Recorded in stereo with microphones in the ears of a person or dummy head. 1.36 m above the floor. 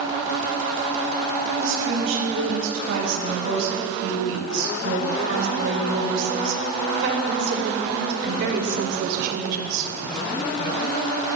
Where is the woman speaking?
90° right, 7 m; by 9.9 s 50° right (ahead or behind), 3.5 m.